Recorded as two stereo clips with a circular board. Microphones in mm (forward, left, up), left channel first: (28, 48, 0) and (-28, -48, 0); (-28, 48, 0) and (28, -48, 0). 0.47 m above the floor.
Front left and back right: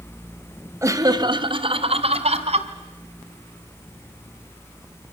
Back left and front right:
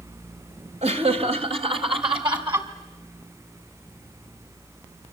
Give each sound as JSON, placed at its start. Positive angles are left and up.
{"t": 0.8, "sound": "laughter", "azimuth_deg": -55, "distance_m": 2.0}